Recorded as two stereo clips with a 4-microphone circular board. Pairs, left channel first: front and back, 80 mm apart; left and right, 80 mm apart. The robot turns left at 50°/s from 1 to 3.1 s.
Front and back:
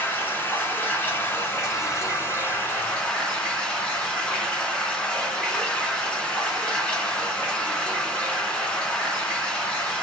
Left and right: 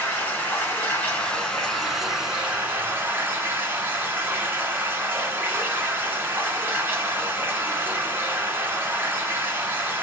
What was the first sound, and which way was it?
Running water, 45° left.